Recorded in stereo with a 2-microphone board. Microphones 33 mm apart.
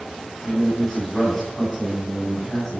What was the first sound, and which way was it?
A man speaking, centre (ahead or behind).